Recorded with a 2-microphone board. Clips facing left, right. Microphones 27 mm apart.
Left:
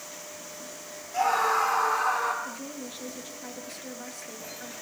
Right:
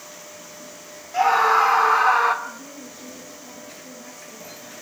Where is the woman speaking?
75° left (ahead or behind), 8 m.